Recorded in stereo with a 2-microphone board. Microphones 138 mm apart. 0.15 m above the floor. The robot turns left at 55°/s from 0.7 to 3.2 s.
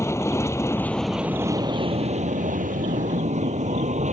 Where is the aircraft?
20° left; by 4.1 s 115° right.